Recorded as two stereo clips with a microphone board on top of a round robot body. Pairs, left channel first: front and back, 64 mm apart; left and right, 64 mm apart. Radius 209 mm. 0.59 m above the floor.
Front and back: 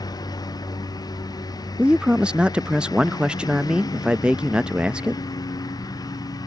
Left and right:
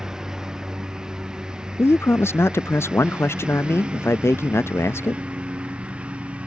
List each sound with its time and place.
0.0 s a lawn mower: 10° right; by 6.5 s 15° right
1.8 s a man speaking: 110° left